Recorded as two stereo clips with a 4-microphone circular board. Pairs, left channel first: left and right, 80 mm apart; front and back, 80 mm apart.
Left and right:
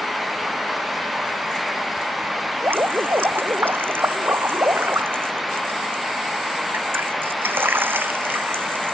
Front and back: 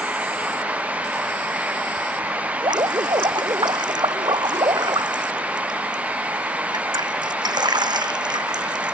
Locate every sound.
2.6 s dripping: 155° right